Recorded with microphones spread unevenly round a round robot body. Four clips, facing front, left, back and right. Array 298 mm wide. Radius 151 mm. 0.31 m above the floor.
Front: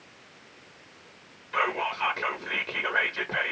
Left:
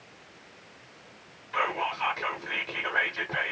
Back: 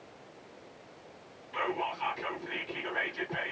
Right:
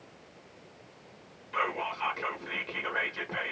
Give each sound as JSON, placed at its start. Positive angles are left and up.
{"t": 1.5, "sound": "whispering", "azimuth_deg": 0, "distance_m": 0.9}